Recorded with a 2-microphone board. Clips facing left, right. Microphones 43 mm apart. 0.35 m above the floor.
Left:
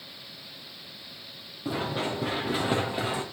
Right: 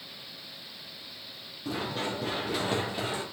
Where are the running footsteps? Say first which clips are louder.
Left 3 dB; 20° left (ahead or behind), 3.5 m.